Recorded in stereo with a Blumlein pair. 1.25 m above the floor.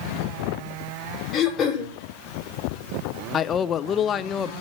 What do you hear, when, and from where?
1.3 s throat clearing: 30° left, 4.5 m
3.3 s a man speaking: 25° left, 0.6 m